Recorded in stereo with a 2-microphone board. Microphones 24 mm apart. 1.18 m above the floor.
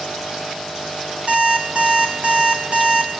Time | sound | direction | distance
1.3 | an alarm clock | 55° right (ahead or behind) | 5.5 m